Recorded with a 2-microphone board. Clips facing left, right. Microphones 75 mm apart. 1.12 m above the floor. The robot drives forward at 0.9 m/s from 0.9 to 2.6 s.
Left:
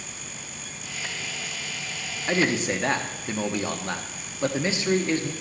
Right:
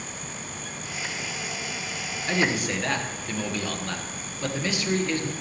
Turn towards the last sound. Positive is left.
turn(degrees=25)  # may be behind; listen again after turning